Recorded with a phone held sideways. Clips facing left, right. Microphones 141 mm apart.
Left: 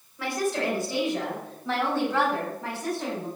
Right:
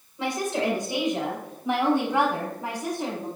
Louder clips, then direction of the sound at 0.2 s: Right 1 dB; 20° right (ahead or behind).